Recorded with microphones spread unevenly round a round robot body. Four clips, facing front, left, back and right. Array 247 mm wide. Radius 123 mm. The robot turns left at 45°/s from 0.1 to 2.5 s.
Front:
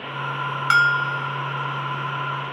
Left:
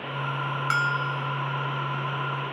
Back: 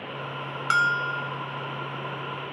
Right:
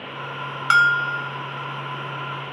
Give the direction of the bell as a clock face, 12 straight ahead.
2 o'clock.